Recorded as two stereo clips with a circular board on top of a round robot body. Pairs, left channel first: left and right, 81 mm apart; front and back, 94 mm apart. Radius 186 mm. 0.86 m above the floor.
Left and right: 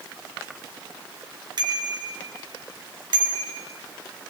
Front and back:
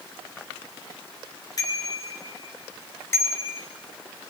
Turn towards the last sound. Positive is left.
turn(degrees=-70)